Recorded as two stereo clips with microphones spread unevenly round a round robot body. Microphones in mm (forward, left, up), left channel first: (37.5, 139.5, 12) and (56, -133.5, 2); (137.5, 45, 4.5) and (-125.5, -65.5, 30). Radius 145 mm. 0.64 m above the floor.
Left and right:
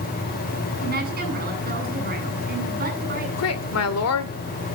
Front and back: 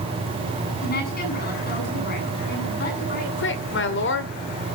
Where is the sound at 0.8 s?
30° right, 8 m.